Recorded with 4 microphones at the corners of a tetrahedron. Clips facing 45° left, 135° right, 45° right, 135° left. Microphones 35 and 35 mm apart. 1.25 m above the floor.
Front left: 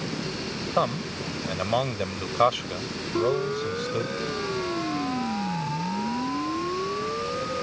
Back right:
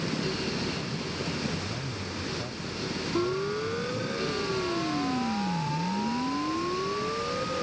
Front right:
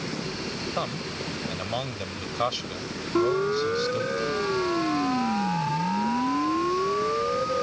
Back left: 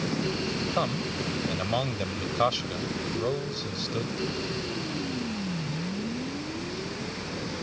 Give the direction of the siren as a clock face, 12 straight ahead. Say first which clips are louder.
Front left 5 dB, front right 11 dB; 1 o'clock.